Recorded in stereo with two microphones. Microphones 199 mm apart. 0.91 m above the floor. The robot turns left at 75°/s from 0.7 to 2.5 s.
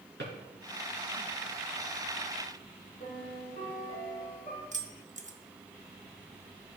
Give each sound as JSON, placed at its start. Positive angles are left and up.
{"t": 0.2, "sound": "a drawer", "side_deg": -65, "distance_m": 3.0}
{"t": 3.0, "sound": "a piano", "side_deg": 40, "distance_m": 3.0}
{"t": 4.7, "sound": "keys jangling", "side_deg": -40, "distance_m": 0.7}